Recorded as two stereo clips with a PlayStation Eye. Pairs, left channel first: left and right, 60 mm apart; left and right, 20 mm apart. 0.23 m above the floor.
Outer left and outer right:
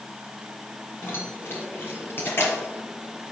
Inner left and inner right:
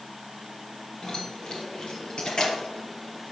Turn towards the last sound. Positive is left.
turn(degrees=45)  # may be behind; listen again after turning